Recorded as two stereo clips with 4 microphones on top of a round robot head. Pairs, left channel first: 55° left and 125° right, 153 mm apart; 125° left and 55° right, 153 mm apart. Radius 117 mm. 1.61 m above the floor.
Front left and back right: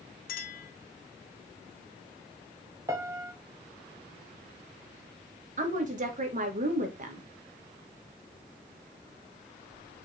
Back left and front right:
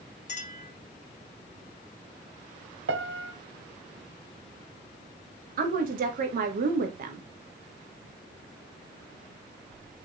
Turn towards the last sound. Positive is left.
turn(degrees=-85)